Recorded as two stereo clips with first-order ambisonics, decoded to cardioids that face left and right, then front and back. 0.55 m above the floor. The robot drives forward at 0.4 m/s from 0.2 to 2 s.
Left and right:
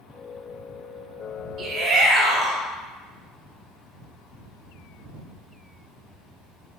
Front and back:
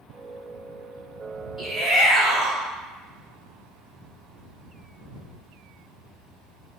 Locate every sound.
1.6 s a shout: 105° right, 0.8 m; by 2.6 s 125° right, 0.9 m